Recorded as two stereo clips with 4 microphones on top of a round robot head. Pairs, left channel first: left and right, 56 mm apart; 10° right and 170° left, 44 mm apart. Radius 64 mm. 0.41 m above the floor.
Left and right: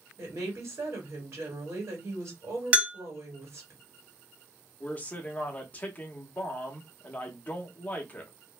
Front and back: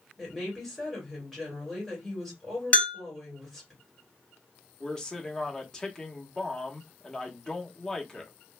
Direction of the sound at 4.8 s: 50° left.